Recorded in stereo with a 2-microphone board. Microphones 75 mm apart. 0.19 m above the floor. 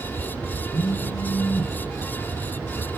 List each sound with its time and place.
0.7 s a phone buzzing: 60° left (ahead or behind), 1.4 m